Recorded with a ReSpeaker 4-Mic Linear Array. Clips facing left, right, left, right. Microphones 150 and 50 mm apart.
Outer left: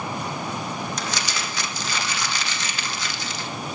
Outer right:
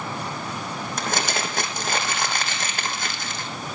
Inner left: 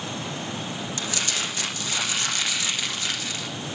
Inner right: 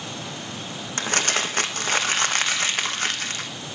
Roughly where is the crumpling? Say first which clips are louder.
Outer right 3 dB, inner right 7 dB; right.